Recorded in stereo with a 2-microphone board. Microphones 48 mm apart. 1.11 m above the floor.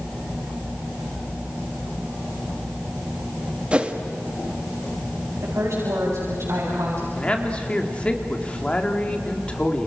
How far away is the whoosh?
About 1.6 m.